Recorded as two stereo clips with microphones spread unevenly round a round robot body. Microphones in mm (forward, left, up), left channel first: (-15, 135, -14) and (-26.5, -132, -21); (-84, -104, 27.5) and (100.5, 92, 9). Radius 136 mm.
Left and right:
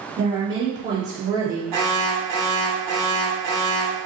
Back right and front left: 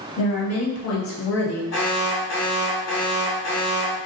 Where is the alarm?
85° right, 1.4 m.